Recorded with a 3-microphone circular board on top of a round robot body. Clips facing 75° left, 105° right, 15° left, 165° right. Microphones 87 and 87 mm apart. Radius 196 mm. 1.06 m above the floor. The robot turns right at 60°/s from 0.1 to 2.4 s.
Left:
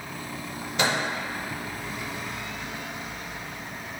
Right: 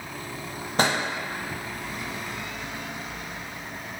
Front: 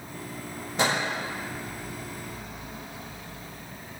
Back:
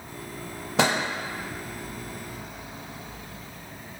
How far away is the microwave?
About 0.5 m.